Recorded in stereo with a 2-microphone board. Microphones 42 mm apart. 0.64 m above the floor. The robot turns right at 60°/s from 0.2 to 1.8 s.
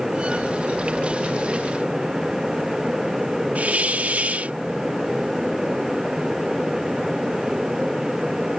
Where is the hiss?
40° right (ahead or behind).